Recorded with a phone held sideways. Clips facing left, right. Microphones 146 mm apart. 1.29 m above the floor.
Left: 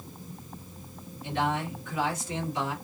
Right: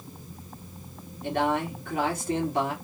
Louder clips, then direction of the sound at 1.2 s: Right 3 dB; 55° right (ahead or behind).